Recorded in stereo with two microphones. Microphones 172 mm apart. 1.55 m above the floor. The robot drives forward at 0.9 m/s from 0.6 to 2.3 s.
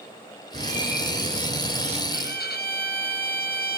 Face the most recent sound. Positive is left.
turn(degrees=75)  # may be behind; listen again after turning